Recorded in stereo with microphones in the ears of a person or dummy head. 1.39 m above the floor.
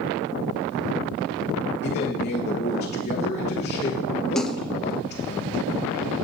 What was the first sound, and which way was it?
A man speaking, 35° left (ahead or behind).